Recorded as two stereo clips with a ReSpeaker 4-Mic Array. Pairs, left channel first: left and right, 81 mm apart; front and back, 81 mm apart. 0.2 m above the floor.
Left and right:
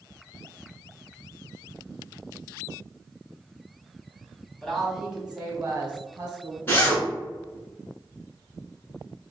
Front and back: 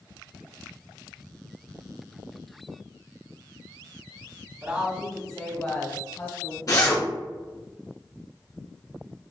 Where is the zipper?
30° left, 1.4 m.